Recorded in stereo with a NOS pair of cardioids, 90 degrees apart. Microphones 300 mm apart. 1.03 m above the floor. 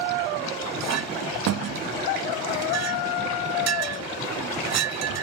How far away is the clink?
About 0.8 m.